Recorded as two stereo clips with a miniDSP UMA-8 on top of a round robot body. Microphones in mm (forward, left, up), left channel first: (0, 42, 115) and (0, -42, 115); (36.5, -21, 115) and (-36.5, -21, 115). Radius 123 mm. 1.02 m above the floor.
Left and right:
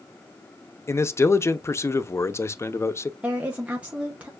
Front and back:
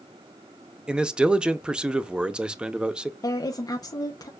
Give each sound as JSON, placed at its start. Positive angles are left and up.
{"t": 0.9, "sound": "a man speaking", "azimuth_deg": 110, "distance_m": 0.7}
{"t": 3.2, "sound": "a woman speaking", "azimuth_deg": -15, "distance_m": 0.9}